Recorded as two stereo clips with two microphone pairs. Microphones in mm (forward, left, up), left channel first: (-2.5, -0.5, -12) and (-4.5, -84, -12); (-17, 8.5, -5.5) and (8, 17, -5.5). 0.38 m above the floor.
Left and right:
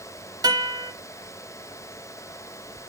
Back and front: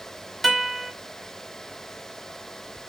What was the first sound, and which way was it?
A guitar, 70° right.